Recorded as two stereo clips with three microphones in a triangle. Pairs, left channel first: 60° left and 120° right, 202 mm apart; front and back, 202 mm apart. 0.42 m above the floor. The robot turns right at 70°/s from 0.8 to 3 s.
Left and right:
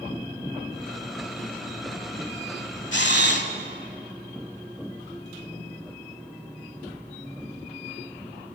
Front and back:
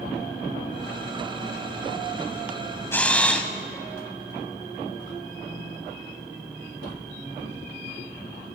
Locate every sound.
2.9 s a camera shutter: 80° left, 1.0 m; by 3.5 s 85° left, 1.0 m